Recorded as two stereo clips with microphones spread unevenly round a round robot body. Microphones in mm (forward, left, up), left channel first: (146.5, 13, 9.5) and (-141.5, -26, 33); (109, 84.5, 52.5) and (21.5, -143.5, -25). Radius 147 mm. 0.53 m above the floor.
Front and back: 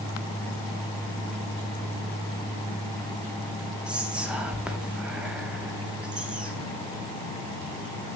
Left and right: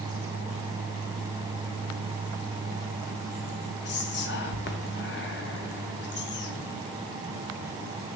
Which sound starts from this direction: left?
Whispering, at 3.9 s.